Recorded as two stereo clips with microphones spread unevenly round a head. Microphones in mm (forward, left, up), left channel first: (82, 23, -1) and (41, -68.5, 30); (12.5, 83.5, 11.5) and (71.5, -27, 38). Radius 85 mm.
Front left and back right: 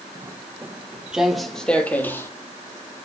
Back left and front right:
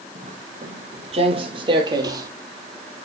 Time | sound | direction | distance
0.1 | footsteps | 75° right | 2.5 m